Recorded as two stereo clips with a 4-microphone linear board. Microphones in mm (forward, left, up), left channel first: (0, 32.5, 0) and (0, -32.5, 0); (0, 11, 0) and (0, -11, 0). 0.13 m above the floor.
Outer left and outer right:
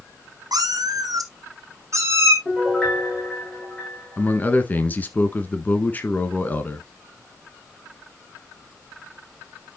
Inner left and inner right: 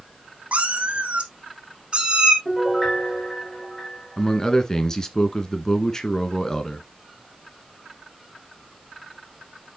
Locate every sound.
0.5 s a cat meowing: 80° right, 1.4 m; by 2.4 s 40° right (ahead or behind), 2 m
2.5 s a piano: 15° left (ahead or behind), 8 m
4.2 s a man speaking: 25° left (ahead or behind), 1.4 m